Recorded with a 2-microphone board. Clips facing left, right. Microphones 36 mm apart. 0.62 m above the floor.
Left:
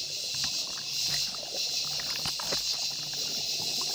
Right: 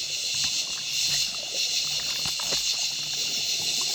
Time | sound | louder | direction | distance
0.0 | an insect | right 5 dB | 70° right (ahead or behind) | 0.7 m